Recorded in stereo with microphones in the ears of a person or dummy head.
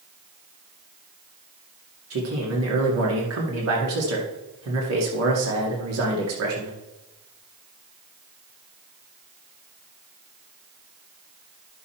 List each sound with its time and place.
2.1 s a man speaking: 85° right, 2 m